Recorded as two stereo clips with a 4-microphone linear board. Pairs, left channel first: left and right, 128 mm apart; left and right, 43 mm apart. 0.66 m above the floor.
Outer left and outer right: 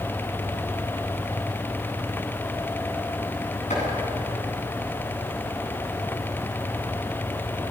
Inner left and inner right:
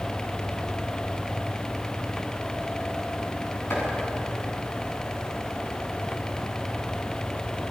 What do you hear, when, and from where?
3.7 s chopping: 65° left (ahead or behind), 8.5 m